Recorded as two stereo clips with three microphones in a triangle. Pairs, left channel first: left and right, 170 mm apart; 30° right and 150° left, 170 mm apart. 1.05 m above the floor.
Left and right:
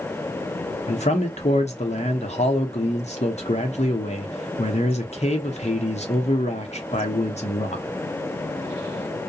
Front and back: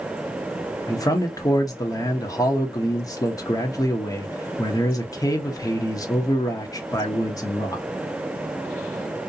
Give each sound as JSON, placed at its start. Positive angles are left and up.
{"t": 0.9, "sound": "a man speaking", "azimuth_deg": 40, "distance_m": 0.8}